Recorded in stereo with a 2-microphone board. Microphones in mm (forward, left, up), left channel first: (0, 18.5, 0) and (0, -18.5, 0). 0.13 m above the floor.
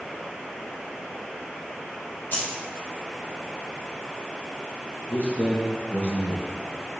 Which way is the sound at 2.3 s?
60° left (ahead or behind).